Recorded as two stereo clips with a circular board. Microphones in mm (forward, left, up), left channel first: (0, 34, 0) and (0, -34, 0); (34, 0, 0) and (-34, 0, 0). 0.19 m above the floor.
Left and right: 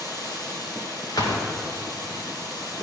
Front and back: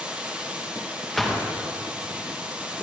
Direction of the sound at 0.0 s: 110° left.